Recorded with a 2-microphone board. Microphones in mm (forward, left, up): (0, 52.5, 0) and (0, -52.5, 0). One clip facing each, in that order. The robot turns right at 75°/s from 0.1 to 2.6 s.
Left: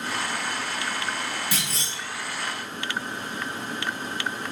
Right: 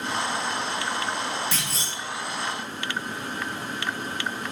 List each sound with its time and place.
1.5 s a clunk: 165° left, 1.8 m; by 1.9 s 165° right, 1.8 m